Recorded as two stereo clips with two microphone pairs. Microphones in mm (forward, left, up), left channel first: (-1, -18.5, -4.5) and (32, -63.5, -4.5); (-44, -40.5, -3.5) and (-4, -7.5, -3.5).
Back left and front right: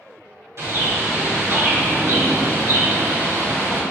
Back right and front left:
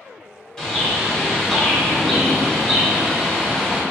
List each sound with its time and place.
0.6 s a bird: 65° right, 1.7 m